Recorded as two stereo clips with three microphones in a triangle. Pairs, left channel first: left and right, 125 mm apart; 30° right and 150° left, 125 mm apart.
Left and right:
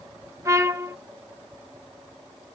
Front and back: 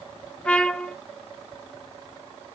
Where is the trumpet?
100° right, 0.7 m.